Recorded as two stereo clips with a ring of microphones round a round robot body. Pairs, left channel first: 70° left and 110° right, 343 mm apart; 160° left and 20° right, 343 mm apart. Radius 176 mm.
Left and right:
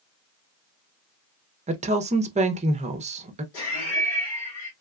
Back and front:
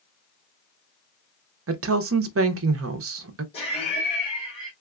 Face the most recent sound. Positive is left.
turn(degrees=85)